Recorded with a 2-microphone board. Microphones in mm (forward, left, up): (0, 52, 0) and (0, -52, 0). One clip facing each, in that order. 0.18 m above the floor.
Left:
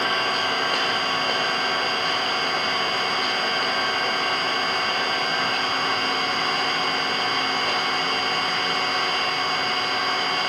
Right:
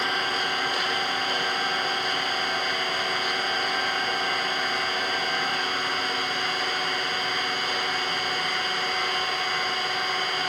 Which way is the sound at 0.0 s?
55° left (ahead or behind).